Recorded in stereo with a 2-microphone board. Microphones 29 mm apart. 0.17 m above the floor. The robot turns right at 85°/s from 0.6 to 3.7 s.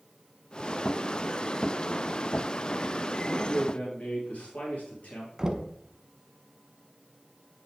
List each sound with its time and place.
3.3 s a man speaking: 30° left, 4 m; by 5.3 s 65° left, 4 m
5.4 s knocking: 20° right (ahead or behind), 0.9 m